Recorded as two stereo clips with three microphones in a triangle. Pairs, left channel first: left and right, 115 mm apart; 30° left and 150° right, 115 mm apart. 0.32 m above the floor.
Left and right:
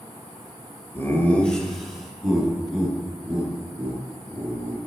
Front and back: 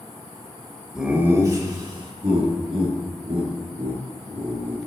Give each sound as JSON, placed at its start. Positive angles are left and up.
{"t": 0.9, "sound": "laughter", "azimuth_deg": 130, "distance_m": 1.0}